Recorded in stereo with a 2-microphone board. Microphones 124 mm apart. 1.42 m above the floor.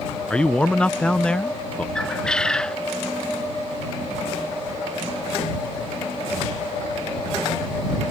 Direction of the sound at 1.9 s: 5° left (ahead or behind).